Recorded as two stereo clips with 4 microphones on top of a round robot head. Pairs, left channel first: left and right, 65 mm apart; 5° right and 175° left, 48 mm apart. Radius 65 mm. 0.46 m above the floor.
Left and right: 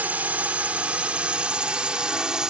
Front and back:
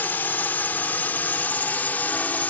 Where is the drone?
35° right; by 2.5 s 15° right.